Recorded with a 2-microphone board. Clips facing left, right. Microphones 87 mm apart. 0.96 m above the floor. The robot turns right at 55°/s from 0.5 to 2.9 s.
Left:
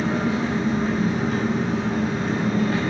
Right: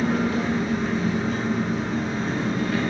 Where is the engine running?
20° left, 1.1 m; by 2.9 s 155° left, 1.1 m.